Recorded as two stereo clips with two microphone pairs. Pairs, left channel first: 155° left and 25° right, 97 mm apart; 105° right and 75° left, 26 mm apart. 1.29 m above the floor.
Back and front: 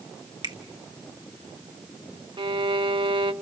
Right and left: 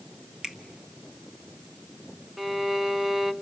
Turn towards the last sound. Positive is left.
turn(degrees=0)